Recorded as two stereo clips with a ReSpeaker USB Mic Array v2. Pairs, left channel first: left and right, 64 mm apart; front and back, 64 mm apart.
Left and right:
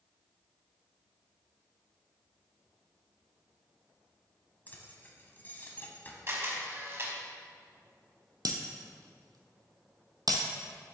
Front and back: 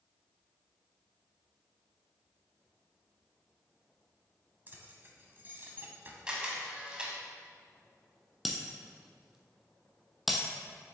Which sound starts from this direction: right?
Breaking glass, at 8.4 s.